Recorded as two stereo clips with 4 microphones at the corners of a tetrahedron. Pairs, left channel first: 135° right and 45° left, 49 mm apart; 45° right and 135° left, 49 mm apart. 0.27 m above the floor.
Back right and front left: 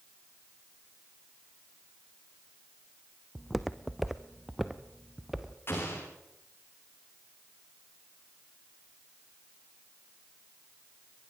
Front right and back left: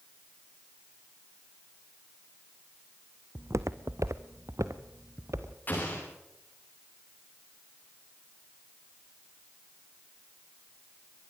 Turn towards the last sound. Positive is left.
turn(degrees=-95)